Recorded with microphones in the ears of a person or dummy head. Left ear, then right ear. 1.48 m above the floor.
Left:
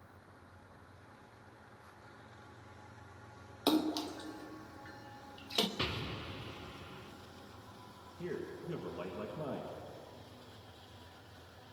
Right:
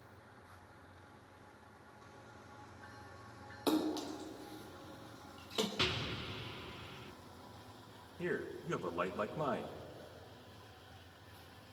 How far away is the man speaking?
About 1.2 m.